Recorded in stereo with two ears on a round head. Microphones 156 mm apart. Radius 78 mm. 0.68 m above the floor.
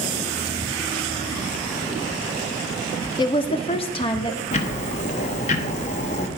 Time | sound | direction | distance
3.2 | a woman speaking | 25° left (ahead or behind) | 0.6 m
4.5 | ticking | 40° left (ahead or behind) | 0.9 m